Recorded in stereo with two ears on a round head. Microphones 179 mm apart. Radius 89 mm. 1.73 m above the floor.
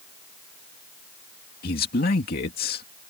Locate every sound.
1.6 s a man speaking: 50° left (ahead or behind)